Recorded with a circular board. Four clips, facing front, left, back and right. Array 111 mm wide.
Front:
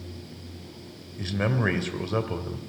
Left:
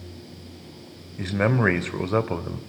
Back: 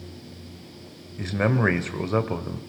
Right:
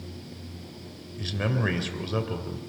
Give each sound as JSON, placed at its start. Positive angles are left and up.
{"t": 1.2, "sound": "a man speaking", "azimuth_deg": 115, "distance_m": 1.7}